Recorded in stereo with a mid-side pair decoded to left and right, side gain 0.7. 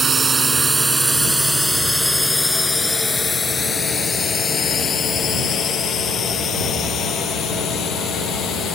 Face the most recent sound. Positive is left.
turn(degrees=45)